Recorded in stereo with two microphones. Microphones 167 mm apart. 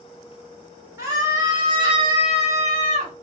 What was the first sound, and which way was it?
A scream, 20° right (ahead or behind).